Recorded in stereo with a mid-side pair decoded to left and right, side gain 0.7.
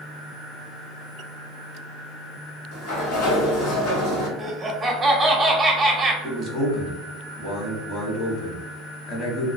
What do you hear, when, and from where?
2.7 s a sliding door: 70° left, 0.9 m
4.4 s laughter: 15° right, 0.9 m
6.2 s a man speaking: 50° left, 1.1 m